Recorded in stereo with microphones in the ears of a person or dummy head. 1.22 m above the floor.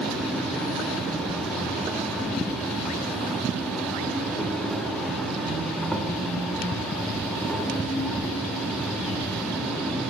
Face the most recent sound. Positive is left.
turn(degrees=5)  # may be behind; listen again after turning